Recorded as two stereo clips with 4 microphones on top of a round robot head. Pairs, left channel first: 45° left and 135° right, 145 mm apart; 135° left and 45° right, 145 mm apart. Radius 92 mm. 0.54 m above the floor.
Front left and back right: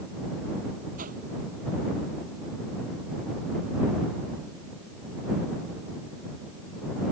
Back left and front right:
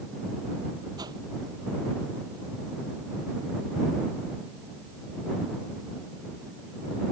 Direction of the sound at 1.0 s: 110° right.